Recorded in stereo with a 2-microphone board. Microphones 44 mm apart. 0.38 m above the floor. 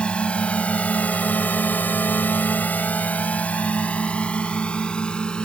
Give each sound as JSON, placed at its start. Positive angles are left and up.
{"t": 0.0, "sound": "a drone", "side_deg": 25}